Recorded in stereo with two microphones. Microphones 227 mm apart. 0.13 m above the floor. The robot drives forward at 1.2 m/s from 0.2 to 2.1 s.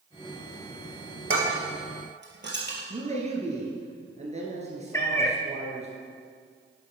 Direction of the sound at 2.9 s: 30° right (ahead or behind).